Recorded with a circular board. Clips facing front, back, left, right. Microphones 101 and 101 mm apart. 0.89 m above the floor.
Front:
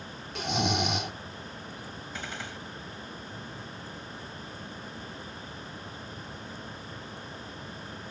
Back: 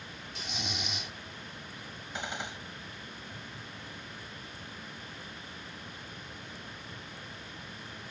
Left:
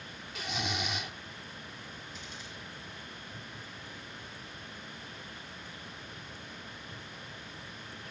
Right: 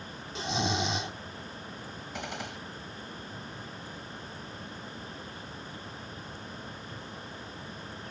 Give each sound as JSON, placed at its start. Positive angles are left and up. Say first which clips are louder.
{"t": 0.3, "sound": "snoring", "louder": "front 13 dB, right 6 dB", "azimuth_deg": -30}
{"t": 2.1, "sound": "a gunshot", "louder": "back 3 dB, right 9 dB", "azimuth_deg": -110}